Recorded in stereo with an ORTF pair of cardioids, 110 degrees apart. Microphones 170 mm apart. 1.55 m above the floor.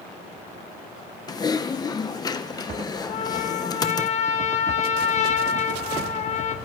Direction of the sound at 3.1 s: 40° left.